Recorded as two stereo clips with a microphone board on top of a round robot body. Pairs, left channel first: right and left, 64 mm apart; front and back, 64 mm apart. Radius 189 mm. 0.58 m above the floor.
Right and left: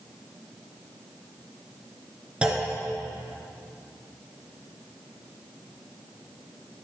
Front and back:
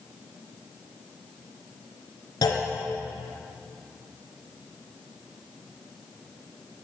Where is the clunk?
15° left, 2.0 m.